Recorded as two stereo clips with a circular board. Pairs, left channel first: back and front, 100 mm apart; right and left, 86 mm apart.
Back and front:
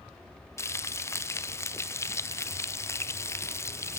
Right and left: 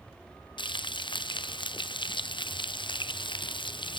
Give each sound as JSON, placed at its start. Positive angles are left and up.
{"t": 0.6, "sound": "frying", "azimuth_deg": -115, "distance_m": 0.9}